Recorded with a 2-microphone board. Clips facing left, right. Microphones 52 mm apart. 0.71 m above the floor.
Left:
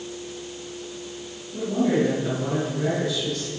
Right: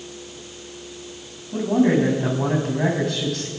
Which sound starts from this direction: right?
A man speaking, at 1.5 s.